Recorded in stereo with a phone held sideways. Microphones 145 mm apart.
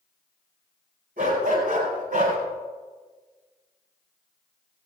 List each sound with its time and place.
1.2 s a dog barking: 85° right, 7.5 m; by 2.4 s 75° right (ahead or behind), 7 m